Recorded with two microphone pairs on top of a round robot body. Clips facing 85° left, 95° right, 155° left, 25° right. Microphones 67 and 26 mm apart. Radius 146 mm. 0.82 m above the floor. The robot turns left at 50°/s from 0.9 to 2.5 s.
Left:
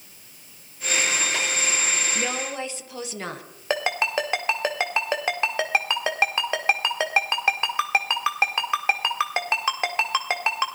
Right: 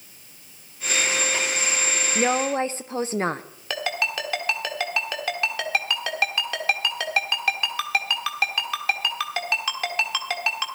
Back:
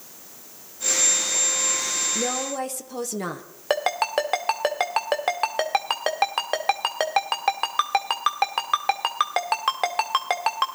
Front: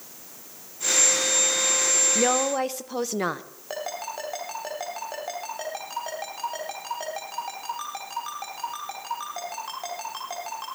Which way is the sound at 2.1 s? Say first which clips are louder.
Right 6 dB, front 4 dB; 50° right.